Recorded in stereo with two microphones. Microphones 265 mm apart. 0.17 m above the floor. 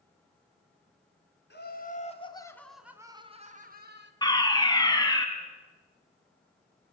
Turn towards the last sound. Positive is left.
turn(degrees=15)  # may be behind; listen again after turning